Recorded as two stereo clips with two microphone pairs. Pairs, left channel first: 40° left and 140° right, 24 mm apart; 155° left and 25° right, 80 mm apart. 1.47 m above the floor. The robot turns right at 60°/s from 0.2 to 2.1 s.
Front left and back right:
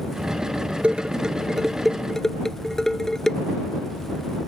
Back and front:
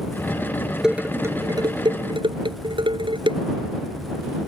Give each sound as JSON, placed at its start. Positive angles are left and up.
{"t": 0.8, "sound": "dishes clattering", "azimuth_deg": -110}